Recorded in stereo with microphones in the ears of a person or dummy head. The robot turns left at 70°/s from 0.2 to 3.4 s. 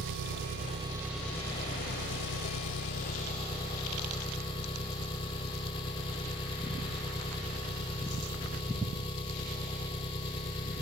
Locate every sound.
0.0 s an engine running: 110° right; by 10.8 s 25° left